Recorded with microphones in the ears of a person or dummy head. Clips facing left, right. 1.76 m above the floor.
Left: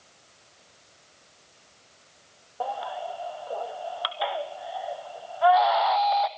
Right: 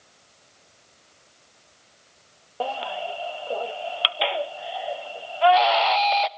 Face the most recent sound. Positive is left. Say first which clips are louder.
# right 3 dB
turn(degrees=-45)  # may be behind; listen again after turning